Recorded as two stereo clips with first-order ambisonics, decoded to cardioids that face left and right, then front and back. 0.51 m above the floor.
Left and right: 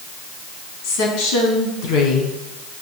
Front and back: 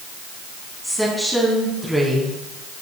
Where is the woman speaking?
90° left, 4 m.